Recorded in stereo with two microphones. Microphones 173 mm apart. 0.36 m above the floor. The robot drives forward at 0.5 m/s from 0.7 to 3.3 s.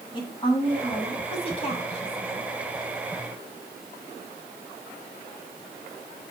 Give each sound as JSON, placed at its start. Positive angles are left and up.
{"t": 0.1, "sound": "a woman speaking", "side_deg": 30, "distance_m": 2.5}